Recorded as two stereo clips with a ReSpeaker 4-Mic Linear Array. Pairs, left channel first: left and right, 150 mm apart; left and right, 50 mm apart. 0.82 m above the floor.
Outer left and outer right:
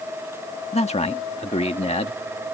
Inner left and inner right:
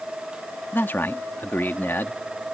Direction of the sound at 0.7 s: 40° left (ahead or behind).